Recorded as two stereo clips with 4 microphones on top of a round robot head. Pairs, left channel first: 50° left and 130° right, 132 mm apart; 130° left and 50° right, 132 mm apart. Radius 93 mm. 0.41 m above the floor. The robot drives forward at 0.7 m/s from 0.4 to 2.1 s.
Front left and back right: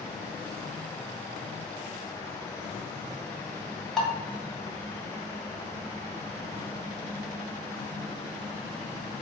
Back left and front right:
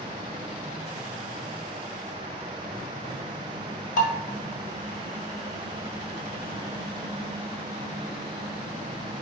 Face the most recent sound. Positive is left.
turn(degrees=140)